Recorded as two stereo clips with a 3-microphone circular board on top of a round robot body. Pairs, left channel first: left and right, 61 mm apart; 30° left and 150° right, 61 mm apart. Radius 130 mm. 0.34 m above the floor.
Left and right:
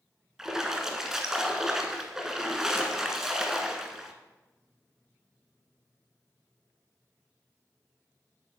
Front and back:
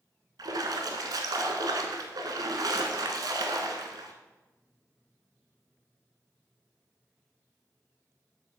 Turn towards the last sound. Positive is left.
turn(degrees=-170)